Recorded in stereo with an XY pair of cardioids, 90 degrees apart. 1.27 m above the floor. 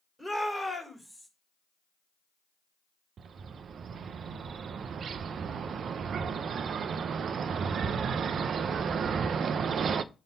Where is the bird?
65° right, 0.6 m.